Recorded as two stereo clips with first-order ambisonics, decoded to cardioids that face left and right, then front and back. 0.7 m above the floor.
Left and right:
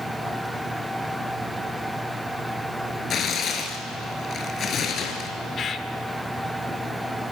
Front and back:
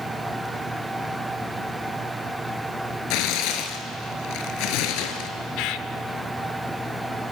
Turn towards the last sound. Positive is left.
turn(degrees=25)